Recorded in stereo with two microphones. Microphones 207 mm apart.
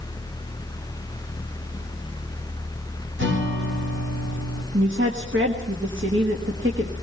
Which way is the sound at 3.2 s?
80° right.